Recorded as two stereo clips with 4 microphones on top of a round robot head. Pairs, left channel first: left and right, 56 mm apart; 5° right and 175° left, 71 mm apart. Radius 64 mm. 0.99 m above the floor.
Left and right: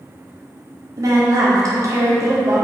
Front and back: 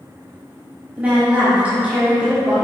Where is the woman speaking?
110° right, 2.5 m.